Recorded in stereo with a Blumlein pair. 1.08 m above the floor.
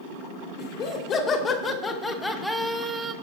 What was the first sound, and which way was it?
Laughter, 30° left.